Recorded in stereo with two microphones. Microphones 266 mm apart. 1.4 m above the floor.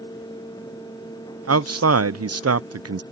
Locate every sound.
1.5 s a man speaking: 70° right (ahead or behind)